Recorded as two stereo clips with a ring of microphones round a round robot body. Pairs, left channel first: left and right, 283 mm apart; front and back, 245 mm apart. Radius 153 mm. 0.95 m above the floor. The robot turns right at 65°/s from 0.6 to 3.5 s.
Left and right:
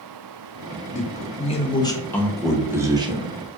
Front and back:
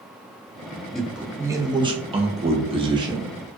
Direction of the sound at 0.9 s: 85° left.